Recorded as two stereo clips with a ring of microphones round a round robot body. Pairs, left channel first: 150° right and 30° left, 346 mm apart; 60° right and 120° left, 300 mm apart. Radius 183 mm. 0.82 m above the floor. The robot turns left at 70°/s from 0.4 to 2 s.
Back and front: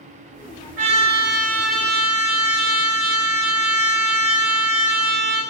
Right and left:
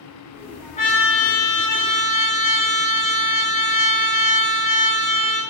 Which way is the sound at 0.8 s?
10° left.